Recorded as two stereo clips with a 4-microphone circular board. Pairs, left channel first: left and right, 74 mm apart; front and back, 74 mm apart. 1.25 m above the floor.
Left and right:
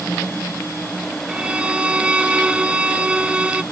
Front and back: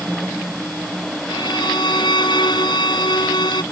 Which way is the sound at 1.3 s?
15° right.